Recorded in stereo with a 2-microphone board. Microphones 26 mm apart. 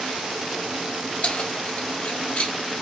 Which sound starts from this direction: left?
Keys jangling, at 1.2 s.